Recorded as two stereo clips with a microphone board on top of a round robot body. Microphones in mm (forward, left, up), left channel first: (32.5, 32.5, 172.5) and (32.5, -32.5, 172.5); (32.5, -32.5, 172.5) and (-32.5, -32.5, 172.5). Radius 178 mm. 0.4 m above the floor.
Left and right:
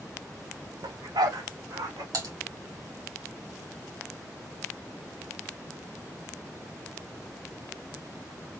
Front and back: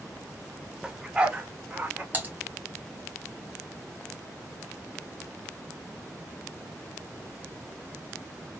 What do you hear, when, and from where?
0.8 s a dog barking: 100° right, 0.7 m; by 2.0 s 110° right, 1.9 m
2.1 s typing on a keyboard: 115° right, 2.5 m